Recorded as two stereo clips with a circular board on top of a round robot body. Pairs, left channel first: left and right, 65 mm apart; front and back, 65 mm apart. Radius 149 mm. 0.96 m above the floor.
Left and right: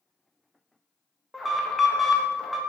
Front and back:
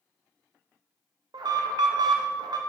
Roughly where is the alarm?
Behind.